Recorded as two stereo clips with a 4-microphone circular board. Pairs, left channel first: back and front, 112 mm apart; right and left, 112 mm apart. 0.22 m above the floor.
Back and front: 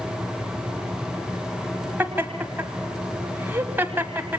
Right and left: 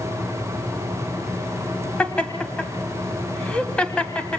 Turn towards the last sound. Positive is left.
turn(degrees=-25)